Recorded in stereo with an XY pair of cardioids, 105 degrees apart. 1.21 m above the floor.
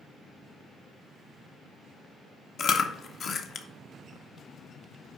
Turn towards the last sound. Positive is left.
turn(degrees=55)